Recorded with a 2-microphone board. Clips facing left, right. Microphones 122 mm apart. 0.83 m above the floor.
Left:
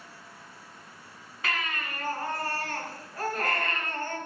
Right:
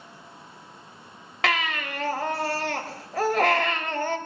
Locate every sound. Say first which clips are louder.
1.4 s a baby crying: right 7 dB; 85° right, 0.8 m